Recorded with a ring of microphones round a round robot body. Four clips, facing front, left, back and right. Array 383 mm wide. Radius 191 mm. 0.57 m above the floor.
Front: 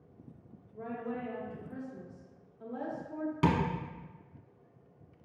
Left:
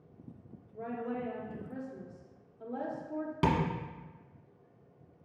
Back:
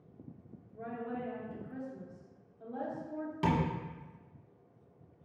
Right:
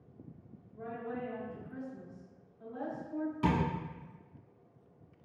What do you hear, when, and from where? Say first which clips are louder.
0.8 s a woman speaking: left 3 dB, front 1 dB; 90° left, 0.8 m
3.4 s tapping: left 2 dB, front 2 dB; 70° left, 1.0 m